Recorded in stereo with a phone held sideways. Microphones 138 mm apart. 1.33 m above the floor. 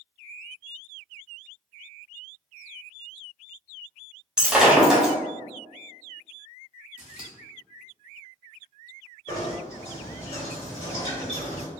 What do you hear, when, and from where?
4.4 s breaking glass: 5° right (ahead or behind), 0.9 m
7.0 s scissors: 10° right (ahead or behind), 0.9 m
9.3 s knocking: 50° left (ahead or behind), 1.5 m